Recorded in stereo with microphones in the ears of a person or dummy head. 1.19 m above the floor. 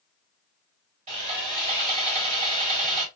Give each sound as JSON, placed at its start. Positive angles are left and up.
{"t": 1.1, "sound": "sawing", "side_deg": -40, "distance_m": 2.0}